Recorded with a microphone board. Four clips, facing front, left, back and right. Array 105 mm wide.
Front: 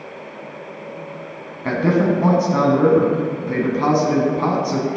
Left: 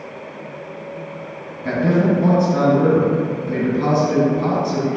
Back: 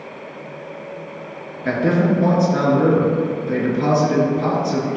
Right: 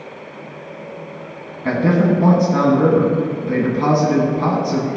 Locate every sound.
1.6 s a man speaking: 35° right, 1.6 m